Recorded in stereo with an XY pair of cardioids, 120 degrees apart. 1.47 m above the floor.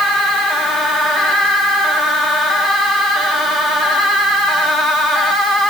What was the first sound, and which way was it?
Only background noise.